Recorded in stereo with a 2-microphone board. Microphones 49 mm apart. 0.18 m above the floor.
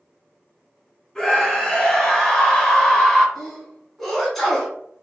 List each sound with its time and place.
1.1 s a scream: 5° left (ahead or behind), 1.6 m
3.4 s a sneeze: centre (ahead or behind), 1.3 m